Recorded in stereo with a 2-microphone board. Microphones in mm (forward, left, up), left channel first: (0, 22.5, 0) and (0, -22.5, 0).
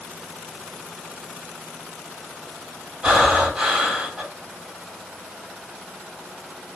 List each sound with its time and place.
3.0 s breathing: 25° right (ahead or behind), 1.8 m